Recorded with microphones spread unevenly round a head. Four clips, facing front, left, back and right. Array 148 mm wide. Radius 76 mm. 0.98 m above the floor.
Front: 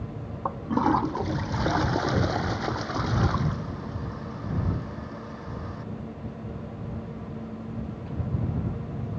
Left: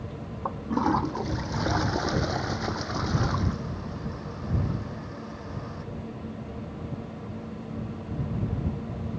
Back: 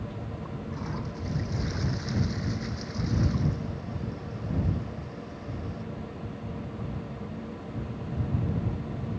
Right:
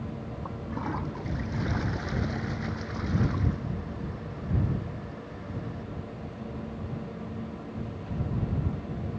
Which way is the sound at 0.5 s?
25° left.